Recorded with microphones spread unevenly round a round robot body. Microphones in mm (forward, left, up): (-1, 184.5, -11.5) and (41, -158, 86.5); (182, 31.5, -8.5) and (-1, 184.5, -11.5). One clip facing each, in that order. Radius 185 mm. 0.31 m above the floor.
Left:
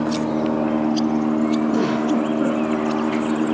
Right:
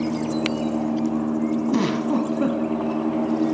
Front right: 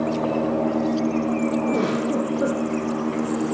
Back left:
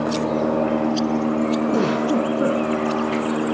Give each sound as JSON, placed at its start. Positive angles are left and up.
{"t": 1.7, "sound": "a giggle", "azimuth_deg": -150, "distance_m": 1.2}